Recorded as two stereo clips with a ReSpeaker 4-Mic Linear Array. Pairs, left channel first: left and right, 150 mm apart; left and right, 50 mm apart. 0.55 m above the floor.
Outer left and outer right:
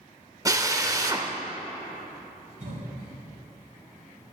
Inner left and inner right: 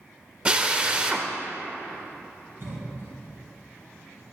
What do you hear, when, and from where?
0.5 s a drill: 25° right (ahead or behind), 0.5 m
2.6 s a cough: 55° right (ahead or behind), 2.5 m